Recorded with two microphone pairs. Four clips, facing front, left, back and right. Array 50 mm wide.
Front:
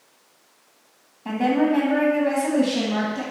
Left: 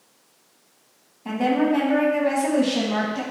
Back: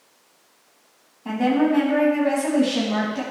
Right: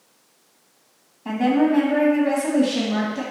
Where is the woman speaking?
40° right, 1.6 m; by 3.2 s 125° left, 1.7 m.